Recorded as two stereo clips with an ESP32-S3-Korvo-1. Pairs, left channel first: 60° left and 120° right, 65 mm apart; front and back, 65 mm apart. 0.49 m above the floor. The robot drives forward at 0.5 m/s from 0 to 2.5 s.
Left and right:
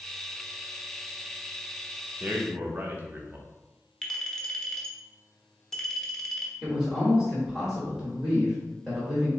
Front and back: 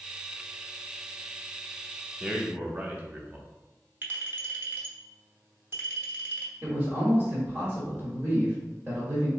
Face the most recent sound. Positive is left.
turn(degrees=160)